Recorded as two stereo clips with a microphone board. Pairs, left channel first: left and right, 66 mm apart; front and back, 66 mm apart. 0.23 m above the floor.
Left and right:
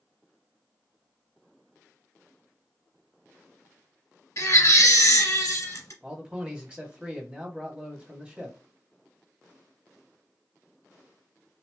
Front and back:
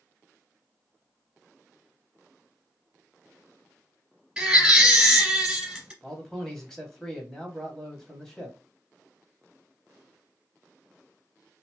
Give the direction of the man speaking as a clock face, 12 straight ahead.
2 o'clock.